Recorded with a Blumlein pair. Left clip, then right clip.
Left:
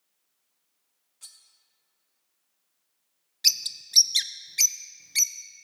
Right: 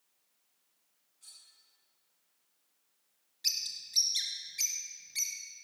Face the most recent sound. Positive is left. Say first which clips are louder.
# left 9 dB
turn(degrees=30)